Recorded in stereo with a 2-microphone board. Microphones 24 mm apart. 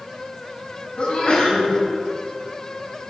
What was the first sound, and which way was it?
A sneeze, 65° left (ahead or behind).